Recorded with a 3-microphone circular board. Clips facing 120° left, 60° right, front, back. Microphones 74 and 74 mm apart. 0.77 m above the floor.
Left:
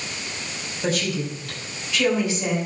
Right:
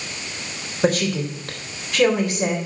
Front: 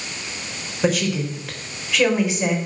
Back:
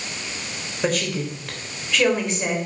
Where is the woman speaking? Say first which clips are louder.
Right 5 dB, front 3 dB; 85° right, 3.5 m.